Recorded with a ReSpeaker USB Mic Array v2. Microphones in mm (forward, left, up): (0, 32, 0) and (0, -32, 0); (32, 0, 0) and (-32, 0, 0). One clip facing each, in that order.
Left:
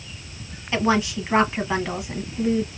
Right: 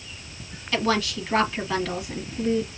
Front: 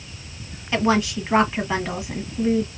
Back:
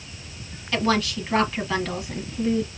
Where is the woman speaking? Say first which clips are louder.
Left 3 dB, front 3 dB; 45° left, 1.1 m.